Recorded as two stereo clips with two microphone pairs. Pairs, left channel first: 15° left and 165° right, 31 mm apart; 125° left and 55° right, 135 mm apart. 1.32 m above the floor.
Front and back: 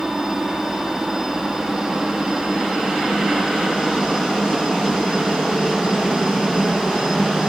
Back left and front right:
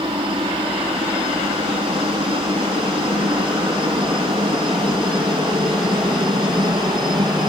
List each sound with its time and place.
0.0 s a helicopter: 95° right